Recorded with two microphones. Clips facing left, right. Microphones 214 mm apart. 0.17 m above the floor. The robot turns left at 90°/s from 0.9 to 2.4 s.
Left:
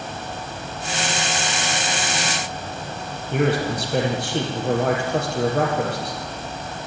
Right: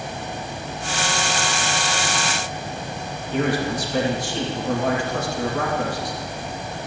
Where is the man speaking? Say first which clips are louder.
Left 1 dB; 65° left (ahead or behind), 5.5 m.